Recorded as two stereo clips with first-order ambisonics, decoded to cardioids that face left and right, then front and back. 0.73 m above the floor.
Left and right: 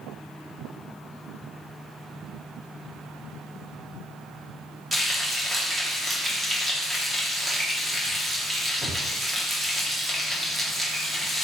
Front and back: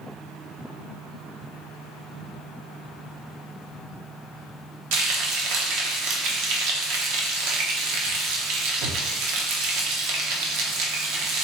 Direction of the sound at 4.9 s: 170° right.